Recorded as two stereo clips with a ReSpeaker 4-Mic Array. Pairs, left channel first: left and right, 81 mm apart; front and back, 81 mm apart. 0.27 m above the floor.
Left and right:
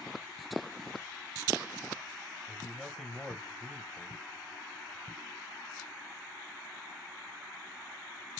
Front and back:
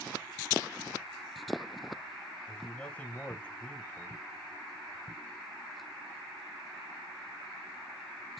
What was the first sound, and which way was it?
A man speaking, 5° right.